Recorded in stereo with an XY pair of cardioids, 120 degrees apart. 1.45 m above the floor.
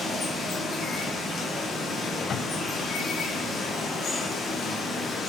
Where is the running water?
35° left, 0.8 m.